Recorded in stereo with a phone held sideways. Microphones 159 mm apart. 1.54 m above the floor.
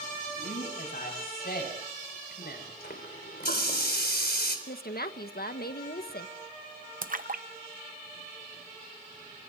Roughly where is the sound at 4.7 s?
Left.